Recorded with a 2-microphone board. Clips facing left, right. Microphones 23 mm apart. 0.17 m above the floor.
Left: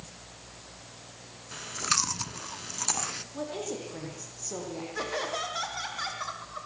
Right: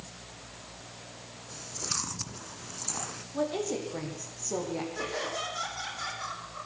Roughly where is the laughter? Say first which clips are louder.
Left 2 dB; left.